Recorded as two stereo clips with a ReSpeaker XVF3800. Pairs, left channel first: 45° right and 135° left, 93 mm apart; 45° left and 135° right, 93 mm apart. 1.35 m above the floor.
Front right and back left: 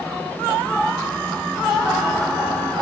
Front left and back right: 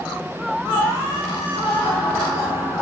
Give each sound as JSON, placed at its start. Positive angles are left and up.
{"t": 1.6, "sound": "laughter", "azimuth_deg": 50, "distance_m": 9.5}